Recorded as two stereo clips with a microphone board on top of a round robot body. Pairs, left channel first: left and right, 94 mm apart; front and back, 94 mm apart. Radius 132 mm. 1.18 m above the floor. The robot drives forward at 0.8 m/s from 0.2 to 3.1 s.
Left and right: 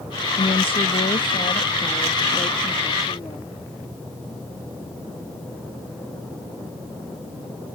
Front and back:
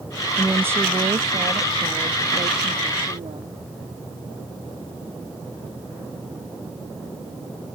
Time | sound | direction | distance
0.4 | a woman speaking | 105° left | ?